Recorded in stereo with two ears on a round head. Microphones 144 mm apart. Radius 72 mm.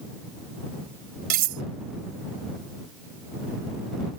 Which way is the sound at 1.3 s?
60° right (ahead or behind).